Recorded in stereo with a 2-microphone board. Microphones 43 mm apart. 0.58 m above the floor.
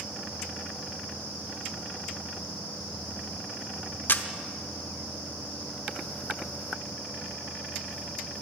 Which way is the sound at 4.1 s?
55° left (ahead or behind).